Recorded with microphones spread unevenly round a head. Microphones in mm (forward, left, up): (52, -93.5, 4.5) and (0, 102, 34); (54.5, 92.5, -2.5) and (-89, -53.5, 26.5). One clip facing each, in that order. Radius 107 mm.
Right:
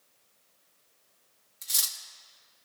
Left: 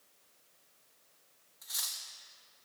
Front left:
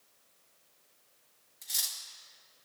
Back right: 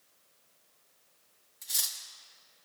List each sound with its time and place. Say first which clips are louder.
1.6 s cutlery clinking: right 2 dB, even; 70° right, 0.6 m